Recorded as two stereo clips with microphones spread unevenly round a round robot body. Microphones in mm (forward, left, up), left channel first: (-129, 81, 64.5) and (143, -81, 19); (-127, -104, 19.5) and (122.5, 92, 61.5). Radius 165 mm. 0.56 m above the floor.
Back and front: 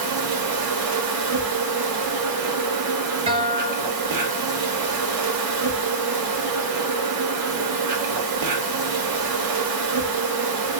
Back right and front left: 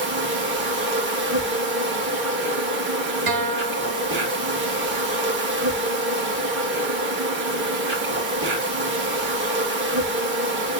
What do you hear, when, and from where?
0.0 s an insect: 20° right, 1.1 m
3.3 s a guitar: 45° left, 0.5 m